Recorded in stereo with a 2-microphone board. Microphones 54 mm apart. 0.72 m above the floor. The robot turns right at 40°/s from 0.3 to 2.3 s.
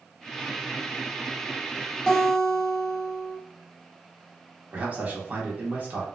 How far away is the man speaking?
About 1.3 m.